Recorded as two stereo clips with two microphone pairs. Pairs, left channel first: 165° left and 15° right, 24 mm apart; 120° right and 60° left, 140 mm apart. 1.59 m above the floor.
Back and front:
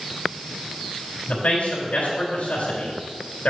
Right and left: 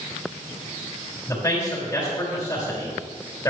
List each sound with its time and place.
1.3 s a man speaking: 170° left, 4 m